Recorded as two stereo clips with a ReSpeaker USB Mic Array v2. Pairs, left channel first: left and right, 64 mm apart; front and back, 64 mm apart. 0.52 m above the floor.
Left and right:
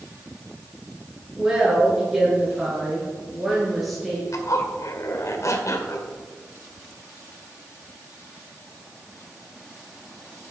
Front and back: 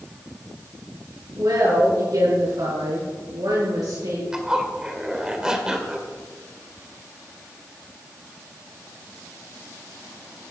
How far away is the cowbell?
No cowbell in this recording.